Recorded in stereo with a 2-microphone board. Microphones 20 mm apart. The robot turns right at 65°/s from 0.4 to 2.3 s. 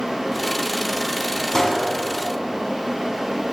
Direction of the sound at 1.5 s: 25° left (ahead or behind).